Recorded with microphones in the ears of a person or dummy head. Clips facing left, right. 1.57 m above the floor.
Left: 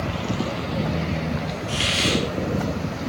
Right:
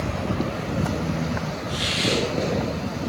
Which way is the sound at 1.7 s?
50° left (ahead or behind).